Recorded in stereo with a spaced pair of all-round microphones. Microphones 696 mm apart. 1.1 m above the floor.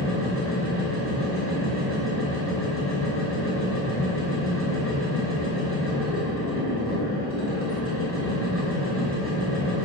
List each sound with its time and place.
0.0 s a machine running: 20° left (ahead or behind), 5.5 m